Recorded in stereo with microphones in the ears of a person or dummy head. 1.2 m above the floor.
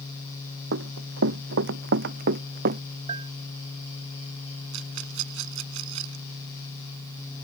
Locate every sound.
0.7 s running footsteps: 70° right (ahead or behind); by 2.8 s 50° right (ahead or behind)
3.1 s a bell: 35° right (ahead or behind)
4.7 s a rattle: 70° right (ahead or behind)